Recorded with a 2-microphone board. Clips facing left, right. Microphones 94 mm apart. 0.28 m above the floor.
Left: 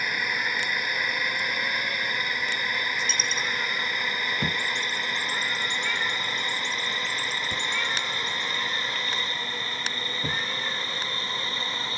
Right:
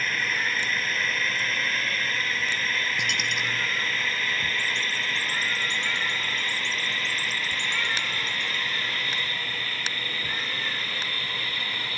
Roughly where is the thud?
Left.